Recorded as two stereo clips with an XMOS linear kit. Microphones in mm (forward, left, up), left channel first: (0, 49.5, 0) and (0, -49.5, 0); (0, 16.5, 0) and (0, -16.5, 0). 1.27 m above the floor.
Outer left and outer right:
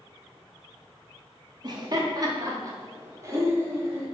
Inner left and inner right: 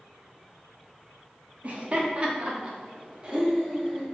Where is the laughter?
45° right (ahead or behind), 2.5 m; by 4.1 s 25° right (ahead or behind), 4 m.